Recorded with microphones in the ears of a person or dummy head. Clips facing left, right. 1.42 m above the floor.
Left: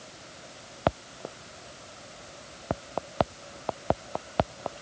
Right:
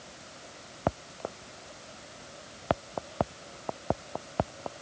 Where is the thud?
I don't hear a thud.